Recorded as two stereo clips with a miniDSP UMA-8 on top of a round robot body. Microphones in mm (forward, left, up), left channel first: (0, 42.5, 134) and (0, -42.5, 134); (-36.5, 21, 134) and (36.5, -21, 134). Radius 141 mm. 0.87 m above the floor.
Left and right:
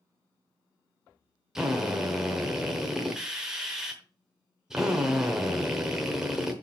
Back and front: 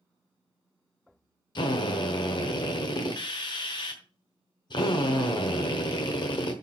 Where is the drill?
175° right, 1.1 m.